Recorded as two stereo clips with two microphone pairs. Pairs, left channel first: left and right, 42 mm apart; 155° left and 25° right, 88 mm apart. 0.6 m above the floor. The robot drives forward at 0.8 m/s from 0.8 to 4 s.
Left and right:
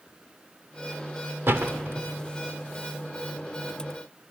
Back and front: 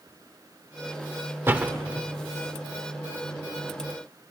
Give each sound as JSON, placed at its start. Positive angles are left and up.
{"t": 1.5, "sound": "a door slam", "azimuth_deg": -85, "distance_m": 1.4}